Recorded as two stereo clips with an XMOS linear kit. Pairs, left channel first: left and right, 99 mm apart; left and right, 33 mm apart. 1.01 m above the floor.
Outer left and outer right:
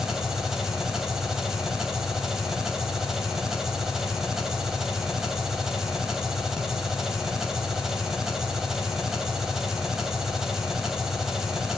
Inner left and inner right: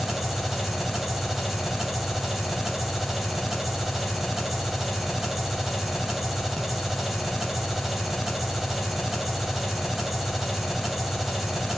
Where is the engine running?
5° right (ahead or behind), 2.5 m.